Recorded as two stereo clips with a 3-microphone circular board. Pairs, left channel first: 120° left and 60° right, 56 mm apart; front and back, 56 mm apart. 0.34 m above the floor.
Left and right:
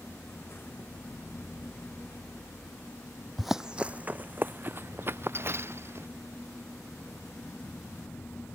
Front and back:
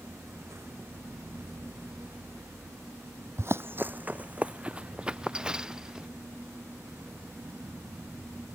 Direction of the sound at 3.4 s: 150° right.